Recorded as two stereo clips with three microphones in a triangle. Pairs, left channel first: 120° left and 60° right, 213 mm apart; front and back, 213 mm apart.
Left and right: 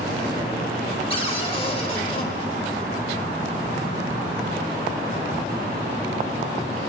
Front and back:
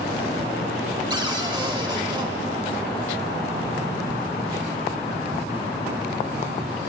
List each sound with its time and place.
1.1 s a cupboard door: 140° left, 1.4 m